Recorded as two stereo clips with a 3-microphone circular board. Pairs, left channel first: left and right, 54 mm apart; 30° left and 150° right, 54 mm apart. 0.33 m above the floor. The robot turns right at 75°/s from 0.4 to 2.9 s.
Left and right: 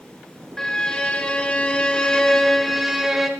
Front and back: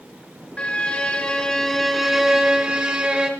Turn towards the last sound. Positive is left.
turn(degrees=-165)